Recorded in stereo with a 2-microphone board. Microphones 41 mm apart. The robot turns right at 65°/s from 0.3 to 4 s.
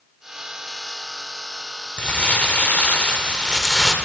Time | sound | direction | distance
2.0 | crumpling | 50° left | 1.0 m